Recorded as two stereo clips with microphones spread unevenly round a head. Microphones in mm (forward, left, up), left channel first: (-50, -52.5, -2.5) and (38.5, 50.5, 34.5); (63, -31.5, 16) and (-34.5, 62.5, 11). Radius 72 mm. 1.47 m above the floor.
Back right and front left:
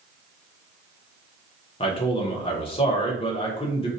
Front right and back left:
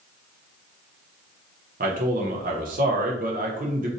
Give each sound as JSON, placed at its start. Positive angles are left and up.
{"t": 1.8, "sound": "a man speaking", "azimuth_deg": 170, "distance_m": 0.7}